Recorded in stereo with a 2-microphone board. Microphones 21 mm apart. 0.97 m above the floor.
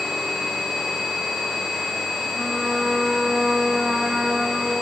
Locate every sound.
2.3 s a trumpet: 35° right (ahead or behind), 4.5 m